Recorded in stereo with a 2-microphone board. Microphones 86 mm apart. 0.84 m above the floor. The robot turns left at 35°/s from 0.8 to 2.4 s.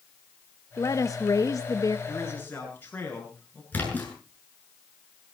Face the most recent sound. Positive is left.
turn(degrees=20)  # may be behind; listen again after turning